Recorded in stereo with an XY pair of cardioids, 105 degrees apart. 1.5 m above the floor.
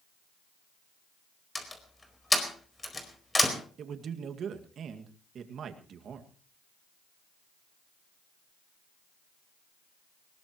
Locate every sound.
1.6 s a door slam: 15° left, 4 m
3.8 s a man speaking: 60° right, 2 m